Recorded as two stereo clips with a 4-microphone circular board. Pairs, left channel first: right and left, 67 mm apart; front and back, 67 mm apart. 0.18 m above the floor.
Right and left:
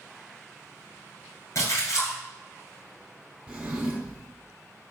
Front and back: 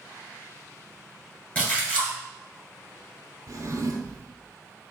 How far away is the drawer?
About 0.9 m.